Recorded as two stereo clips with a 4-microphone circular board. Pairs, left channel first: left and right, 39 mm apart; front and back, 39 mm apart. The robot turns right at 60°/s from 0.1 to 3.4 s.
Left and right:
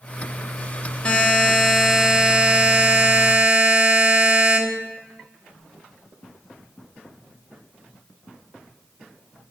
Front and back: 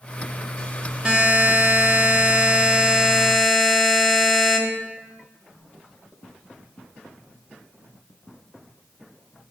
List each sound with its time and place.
1.1 s a buzzer: 130° left, 0.8 m; by 4.6 s 85° right, 0.8 m